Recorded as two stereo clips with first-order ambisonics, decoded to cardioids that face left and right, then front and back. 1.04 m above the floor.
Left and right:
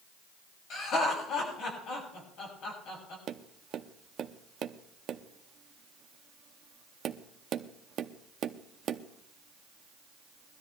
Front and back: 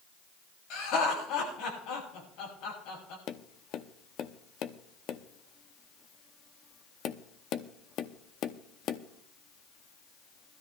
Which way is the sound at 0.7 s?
40° left.